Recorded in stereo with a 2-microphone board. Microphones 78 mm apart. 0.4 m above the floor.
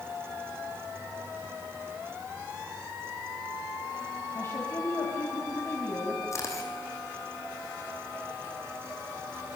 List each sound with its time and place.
4.3 s a woman speaking: 35° left (ahead or behind), 3.5 m
6.3 s a camera shutter: 40° left (ahead or behind), 5 m